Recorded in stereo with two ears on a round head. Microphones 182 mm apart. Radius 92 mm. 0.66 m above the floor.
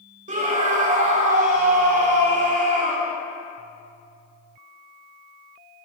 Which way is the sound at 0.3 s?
40° right (ahead or behind).